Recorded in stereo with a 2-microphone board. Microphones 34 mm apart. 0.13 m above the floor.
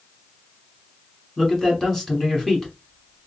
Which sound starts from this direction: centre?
A man speaking, at 1.4 s.